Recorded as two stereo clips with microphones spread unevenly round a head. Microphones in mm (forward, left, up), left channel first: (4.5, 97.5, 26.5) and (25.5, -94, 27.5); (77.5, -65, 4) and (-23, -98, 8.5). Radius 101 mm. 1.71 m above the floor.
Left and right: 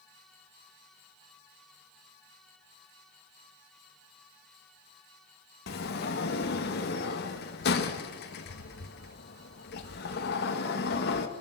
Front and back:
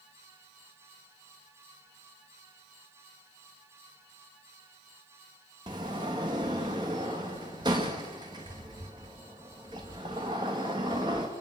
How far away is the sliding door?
About 1.6 m.